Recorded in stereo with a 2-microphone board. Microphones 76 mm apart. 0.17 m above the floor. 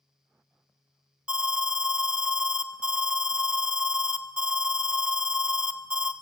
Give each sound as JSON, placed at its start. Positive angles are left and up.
{"t": 1.3, "sound": "an alarm", "side_deg": -15, "distance_m": 0.7}